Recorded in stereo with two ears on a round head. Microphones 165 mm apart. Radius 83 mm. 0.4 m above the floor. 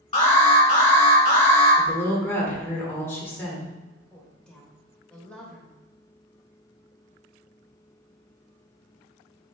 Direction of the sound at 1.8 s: 15° left (ahead or behind).